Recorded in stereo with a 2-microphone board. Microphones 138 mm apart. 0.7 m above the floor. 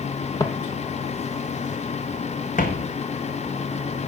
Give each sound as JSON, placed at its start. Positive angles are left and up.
{"t": 0.4, "sound": "footsteps", "side_deg": 25, "distance_m": 0.9}